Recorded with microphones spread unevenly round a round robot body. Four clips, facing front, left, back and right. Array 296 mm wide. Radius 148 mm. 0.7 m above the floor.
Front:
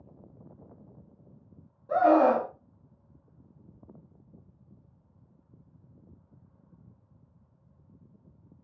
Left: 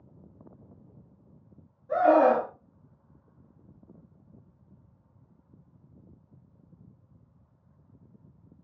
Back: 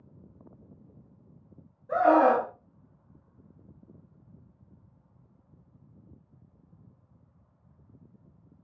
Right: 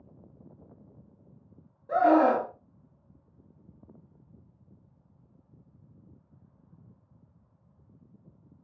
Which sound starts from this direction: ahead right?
A scream, at 1.9 s.